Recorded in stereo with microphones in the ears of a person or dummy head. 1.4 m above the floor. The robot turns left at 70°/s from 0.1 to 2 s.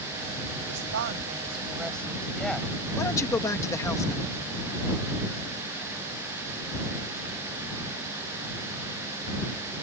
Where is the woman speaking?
90° right; by 2.7 s 175° left.